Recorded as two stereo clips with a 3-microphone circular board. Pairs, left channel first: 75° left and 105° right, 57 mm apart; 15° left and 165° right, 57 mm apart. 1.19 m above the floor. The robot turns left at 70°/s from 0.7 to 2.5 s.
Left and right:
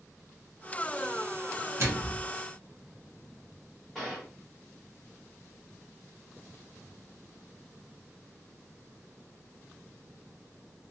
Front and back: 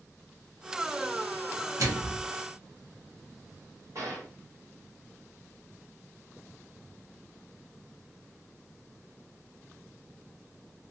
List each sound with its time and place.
1.8 s a microwave: 145° right, 0.8 m; by 2.3 s straight behind, 0.8 m
4.0 s a gunshot: 160° left, 1.3 m